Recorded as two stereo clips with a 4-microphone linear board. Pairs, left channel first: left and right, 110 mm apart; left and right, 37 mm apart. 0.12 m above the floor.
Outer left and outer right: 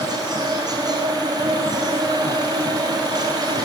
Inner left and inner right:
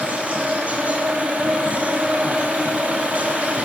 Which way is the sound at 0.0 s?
40° right (ahead or behind).